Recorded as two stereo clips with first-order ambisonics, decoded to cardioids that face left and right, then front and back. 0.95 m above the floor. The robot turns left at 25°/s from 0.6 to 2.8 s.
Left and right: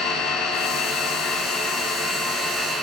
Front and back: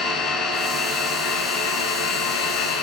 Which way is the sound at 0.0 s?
50° left.